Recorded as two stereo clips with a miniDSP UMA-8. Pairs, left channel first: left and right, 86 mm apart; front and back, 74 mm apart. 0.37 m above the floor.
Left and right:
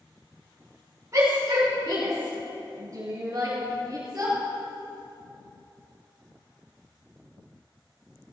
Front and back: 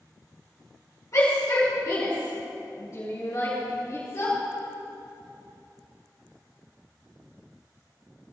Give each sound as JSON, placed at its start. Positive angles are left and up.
{"t": 1.1, "sound": "a shout", "azimuth_deg": -40, "distance_m": 4.0}